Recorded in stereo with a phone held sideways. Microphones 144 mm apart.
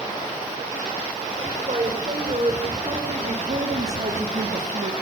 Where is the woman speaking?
50° right (ahead or behind), 4 m.